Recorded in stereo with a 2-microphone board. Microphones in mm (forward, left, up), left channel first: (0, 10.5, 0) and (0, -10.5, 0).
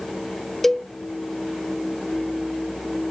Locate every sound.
0.6 s a cowbell: 10° left (ahead or behind)